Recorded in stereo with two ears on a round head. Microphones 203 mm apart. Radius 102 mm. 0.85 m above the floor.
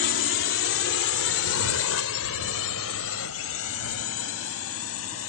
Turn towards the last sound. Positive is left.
turn(degrees=70)  # may be behind; listen again after turning